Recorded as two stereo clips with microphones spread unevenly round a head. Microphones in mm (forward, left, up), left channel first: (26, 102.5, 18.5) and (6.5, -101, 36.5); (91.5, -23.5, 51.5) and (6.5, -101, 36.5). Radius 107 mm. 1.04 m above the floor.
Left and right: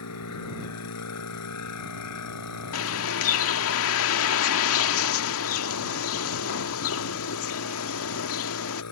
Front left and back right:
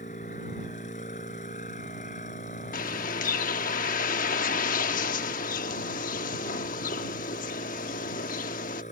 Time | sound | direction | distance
0.0 | a machine running | 95° left | ?
2.7 | a bird | 65° left | ?